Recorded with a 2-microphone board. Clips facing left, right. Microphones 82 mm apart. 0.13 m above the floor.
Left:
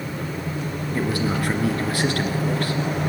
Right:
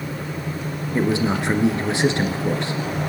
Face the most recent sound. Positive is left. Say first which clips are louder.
# right 4 dB
turn(degrees=-20)  # may be behind; listen again after turning